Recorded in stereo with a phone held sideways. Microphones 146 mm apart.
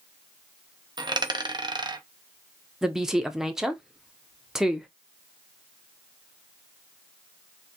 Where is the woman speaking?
5° right (ahead or behind), 0.5 m.